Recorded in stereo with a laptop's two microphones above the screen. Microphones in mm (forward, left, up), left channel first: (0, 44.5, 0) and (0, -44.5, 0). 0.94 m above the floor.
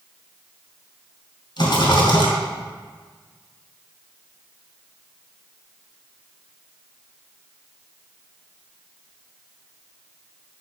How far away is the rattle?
About 2.5 m.